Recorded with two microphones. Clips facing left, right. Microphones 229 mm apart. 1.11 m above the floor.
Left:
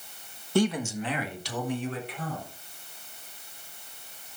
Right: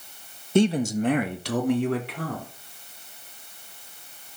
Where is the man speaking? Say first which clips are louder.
Right 5 dB; 20° right (ahead or behind), 1.3 m; by 2.5 s 75° right (ahead or behind), 3.5 m.